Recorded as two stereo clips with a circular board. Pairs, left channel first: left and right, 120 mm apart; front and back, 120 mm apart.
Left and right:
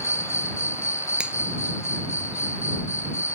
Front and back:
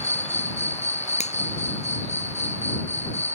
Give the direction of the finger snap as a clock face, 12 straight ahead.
12 o'clock.